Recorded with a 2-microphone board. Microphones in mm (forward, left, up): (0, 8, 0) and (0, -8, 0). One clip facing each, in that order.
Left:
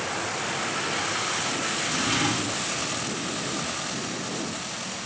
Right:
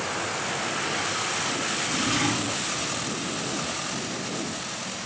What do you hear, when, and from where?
1.8 s a drawer: 35° left (ahead or behind), 2.5 m